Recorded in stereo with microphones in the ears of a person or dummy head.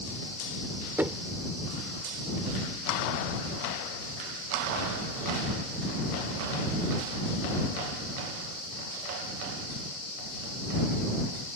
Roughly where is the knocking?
Centre.